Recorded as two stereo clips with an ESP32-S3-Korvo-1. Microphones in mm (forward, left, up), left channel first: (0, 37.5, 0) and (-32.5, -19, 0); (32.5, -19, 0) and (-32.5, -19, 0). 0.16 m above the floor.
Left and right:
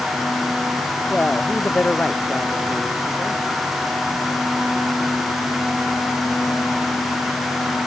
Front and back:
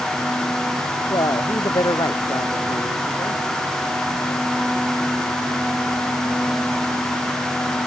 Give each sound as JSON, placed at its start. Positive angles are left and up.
{"t": 1.1, "sound": "a man speaking", "azimuth_deg": -10}